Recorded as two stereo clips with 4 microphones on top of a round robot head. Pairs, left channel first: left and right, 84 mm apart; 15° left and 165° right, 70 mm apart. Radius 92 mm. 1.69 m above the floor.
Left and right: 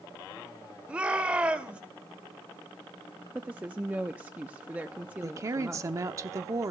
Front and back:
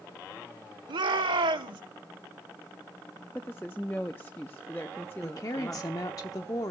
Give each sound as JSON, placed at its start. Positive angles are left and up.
{"t": 0.9, "sound": "a shout", "azimuth_deg": -170, "distance_m": 1.4}
{"t": 3.4, "sound": "a woman speaking", "azimuth_deg": -40, "distance_m": 0.5}
{"t": 5.2, "sound": "a woman speaking", "azimuth_deg": -40, "distance_m": 0.8}